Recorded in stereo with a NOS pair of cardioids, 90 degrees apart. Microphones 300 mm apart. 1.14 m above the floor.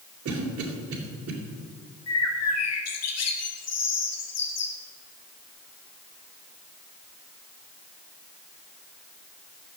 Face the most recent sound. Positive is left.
turn(degrees=55)